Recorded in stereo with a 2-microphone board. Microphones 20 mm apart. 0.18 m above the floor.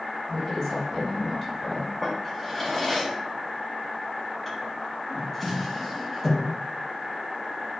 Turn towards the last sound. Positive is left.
turn(degrees=5)  # may be behind; listen again after turning